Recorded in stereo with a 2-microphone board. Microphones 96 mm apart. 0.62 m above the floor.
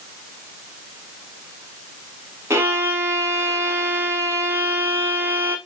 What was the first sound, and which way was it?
A violin, 30° right (ahead or behind).